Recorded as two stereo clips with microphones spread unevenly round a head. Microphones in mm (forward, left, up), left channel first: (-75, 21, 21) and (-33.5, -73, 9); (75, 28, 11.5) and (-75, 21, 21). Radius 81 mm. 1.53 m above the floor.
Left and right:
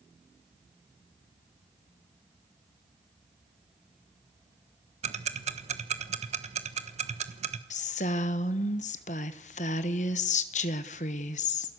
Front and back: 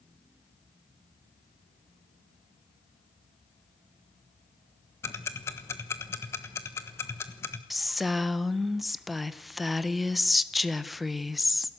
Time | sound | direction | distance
5.0 | ticking | 75° right | 1.2 m
7.7 | a woman speaking | 95° left | 1.2 m